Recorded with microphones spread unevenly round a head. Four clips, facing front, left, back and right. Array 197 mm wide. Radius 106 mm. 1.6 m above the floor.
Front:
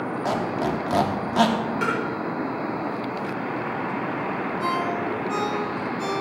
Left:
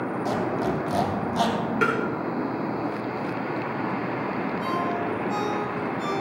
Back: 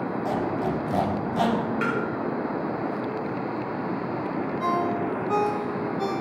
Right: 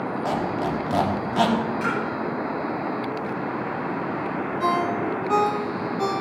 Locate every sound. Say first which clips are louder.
0.2 s a squeak: even, front 2 dB; 15° right, 3 m
1.8 s tapping: left 2 dB, front 1 dB; 85° left, 6.5 m
4.6 s a ringtone: right 6 dB, back 1 dB; 90° right, 3 m